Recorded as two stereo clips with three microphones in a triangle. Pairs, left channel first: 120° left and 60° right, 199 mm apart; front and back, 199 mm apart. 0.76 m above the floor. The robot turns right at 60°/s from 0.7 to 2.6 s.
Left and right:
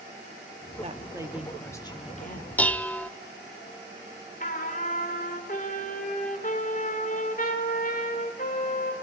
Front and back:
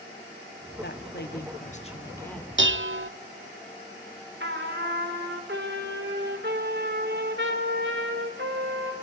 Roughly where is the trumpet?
Behind.